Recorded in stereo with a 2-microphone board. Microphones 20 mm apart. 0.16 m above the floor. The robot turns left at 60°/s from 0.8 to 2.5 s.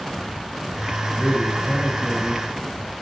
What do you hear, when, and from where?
1.1 s a man speaking: 120° left, 3 m; by 2.5 s 40° left, 3 m